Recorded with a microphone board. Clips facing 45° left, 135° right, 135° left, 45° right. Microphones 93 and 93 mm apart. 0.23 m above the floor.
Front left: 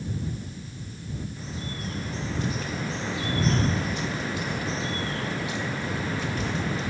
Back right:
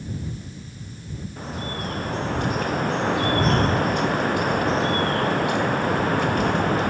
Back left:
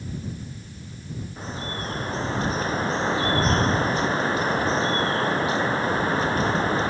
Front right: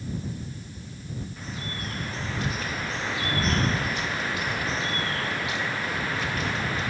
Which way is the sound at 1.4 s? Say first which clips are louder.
Back right 5 dB, back left 4 dB; 170° right.